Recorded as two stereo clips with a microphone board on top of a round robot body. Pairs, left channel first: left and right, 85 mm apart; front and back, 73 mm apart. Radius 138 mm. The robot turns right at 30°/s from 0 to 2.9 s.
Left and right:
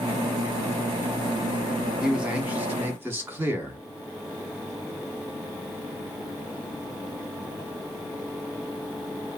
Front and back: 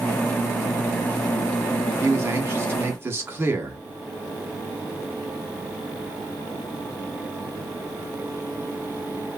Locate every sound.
2.0 s a man speaking: 165° right, 1.1 m; by 3.8 s 140° right, 1.1 m